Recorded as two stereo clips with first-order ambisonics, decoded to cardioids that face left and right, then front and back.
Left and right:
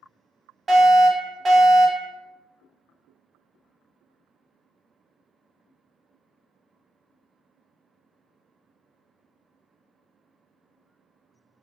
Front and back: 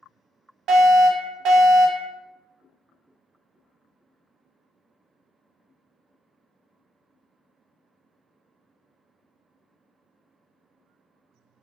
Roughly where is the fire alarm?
Behind right.